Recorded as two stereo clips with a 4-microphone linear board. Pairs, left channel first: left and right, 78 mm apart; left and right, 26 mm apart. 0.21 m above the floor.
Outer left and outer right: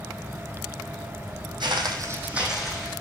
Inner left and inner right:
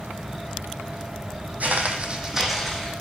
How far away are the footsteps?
About 0.6 m.